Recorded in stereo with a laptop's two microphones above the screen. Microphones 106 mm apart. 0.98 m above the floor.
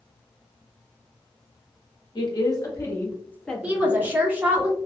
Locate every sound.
2.1 s a woman speaking: 45° left (ahead or behind), 1.2 m; by 4.6 s 20° right (ahead or behind), 1.3 m
3.6 s a woman speaking: 15° right (ahead or behind), 0.9 m